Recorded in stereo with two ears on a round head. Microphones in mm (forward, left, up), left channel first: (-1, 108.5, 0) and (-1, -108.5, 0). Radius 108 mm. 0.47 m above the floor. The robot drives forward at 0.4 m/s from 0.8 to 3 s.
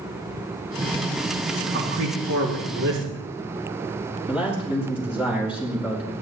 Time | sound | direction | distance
1.7 | a man speaking | 60° right (ahead or behind) | 4.5 m
4.3 | a man speaking | 5° right (ahead or behind) | 5 m